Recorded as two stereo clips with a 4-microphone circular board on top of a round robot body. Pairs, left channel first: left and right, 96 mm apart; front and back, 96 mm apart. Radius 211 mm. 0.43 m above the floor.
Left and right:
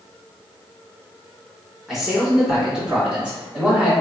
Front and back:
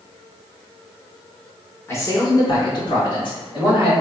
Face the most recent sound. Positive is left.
turn(degrees=-10)